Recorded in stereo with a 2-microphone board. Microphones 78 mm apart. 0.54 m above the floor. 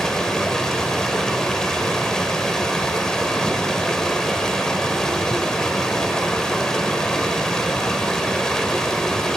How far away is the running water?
About 0.7 m.